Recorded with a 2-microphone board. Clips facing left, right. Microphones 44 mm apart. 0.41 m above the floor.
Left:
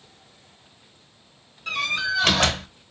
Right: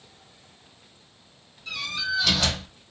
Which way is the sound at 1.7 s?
50° left (ahead or behind).